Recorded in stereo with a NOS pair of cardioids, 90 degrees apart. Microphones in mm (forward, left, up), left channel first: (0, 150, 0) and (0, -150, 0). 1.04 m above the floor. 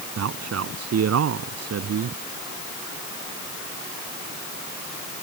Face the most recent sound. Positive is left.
turn(degrees=-60)